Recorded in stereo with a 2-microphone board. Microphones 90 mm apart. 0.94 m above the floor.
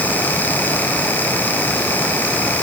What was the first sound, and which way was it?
Only background noise.